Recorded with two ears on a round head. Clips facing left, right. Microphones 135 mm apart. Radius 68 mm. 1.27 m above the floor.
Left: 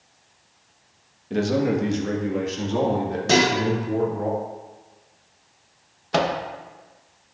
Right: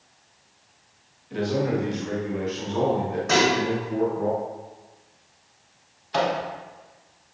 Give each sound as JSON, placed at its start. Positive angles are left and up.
{"t": 1.3, "sound": "a man speaking", "side_deg": 50, "distance_m": 1.4}
{"t": 3.3, "sound": "dishes clattering", "side_deg": 35, "distance_m": 1.8}
{"t": 6.1, "sound": "a microwave", "side_deg": 65, "distance_m": 1.2}